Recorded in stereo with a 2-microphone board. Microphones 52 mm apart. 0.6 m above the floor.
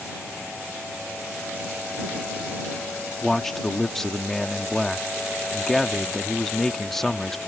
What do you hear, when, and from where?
3.2 s a man speaking: 5° left (ahead or behind)